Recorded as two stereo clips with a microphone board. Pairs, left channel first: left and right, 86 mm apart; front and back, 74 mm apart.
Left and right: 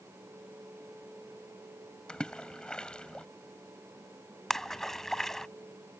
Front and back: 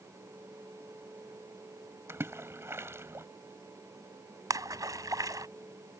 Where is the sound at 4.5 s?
175° left.